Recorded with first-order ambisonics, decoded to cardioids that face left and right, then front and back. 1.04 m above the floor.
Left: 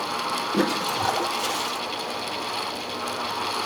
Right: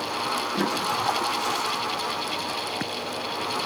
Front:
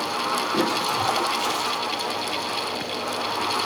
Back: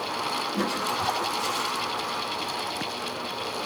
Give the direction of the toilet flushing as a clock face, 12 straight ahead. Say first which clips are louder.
Left 1 dB, front 4 dB; 10 o'clock.